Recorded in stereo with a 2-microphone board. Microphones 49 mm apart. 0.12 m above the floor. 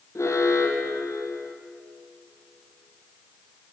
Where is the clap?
No clap in this recording.